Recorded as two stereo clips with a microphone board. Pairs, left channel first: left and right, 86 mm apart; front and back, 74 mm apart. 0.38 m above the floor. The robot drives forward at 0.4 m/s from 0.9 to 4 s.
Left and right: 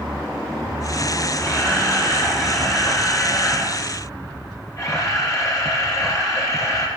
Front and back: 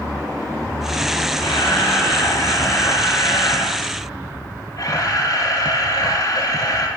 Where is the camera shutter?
35° left, 6.5 m; by 6.9 s 40° left, 5.5 m.